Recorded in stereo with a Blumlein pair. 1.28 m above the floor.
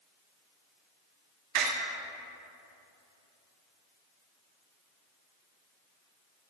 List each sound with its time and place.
1.6 s a door slam: 40° right, 1.5 m